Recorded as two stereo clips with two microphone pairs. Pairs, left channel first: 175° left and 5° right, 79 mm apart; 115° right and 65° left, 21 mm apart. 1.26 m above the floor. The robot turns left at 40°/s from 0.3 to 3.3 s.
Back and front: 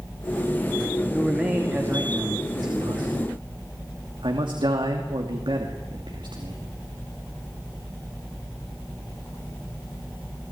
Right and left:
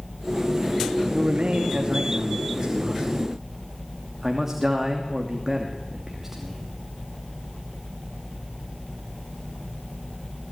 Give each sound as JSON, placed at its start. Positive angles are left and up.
{"t": 1.1, "sound": "a man speaking", "azimuth_deg": 85, "distance_m": 2.5}